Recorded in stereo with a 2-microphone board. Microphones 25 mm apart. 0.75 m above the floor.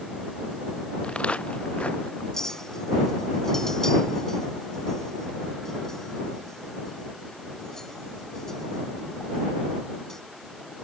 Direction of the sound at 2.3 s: 20° left (ahead or behind).